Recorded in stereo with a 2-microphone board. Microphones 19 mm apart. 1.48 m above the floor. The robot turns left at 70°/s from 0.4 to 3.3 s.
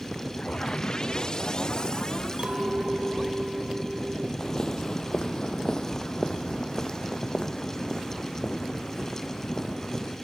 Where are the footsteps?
35° left (ahead or behind).